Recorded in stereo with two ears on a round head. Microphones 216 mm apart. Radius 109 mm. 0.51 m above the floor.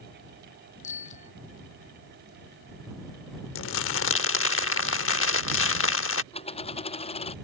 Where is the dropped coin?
25° left (ahead or behind).